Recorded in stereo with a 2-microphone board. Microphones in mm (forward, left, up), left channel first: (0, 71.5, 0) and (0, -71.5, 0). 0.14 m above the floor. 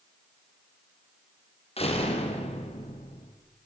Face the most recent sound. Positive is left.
turn(degrees=45)  # may be behind; listen again after turning